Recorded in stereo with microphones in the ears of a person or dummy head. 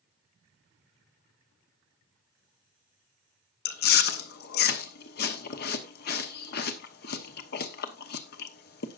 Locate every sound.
3.6 s chewing: 55° left (ahead or behind), 1.0 m